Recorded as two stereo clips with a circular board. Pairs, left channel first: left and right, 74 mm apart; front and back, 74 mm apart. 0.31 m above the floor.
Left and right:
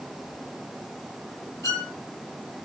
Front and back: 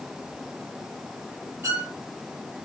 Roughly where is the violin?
Behind left.